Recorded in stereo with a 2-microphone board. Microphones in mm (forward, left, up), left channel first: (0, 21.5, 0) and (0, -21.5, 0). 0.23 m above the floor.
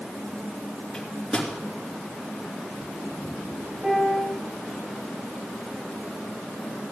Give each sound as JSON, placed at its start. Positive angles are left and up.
{"t": 0.9, "sound": "a microwave", "side_deg": 15, "distance_m": 3.0}
{"t": 3.8, "sound": "a piano", "side_deg": -15, "distance_m": 4.0}